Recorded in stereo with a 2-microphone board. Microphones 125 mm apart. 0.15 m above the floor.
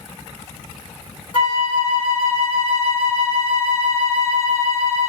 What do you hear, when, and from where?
1.3 s a flute: 45° left (ahead or behind), 1.3 m